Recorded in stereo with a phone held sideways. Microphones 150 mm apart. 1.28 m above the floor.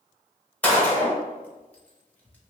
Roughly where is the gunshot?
Centre.